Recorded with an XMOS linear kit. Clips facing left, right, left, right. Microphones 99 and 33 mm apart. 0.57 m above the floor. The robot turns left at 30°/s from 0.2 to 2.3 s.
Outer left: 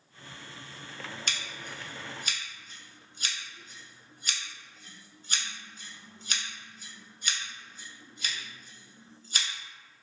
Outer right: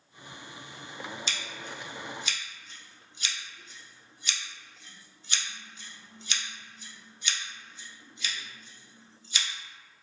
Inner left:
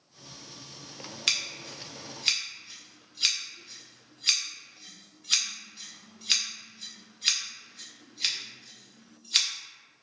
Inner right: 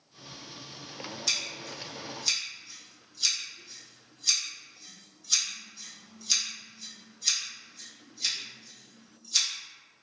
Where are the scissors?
55° left (ahead or behind), 0.6 m; by 9.5 s 45° left (ahead or behind), 0.6 m.